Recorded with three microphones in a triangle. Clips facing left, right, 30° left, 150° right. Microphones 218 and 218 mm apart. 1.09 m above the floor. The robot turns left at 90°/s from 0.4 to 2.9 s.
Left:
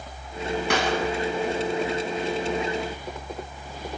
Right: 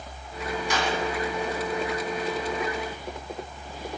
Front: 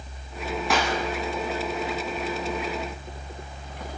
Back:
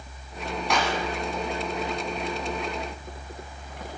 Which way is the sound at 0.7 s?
120° left.